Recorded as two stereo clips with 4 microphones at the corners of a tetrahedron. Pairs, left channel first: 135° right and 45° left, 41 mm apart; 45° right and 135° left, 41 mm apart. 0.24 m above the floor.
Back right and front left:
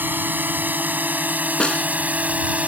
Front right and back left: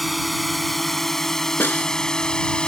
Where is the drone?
45° left; by 2.7 s 10° left.